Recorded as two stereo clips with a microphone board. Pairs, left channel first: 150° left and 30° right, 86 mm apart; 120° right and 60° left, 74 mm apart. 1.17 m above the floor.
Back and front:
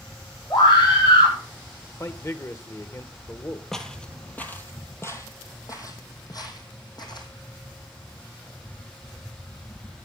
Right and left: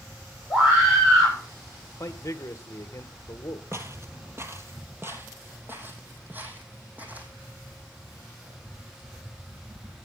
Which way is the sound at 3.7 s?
70° left.